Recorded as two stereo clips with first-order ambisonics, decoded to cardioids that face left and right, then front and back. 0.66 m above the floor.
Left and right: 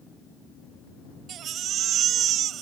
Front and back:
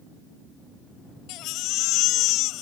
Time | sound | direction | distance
1.3 | a baby crying | 35° right | ?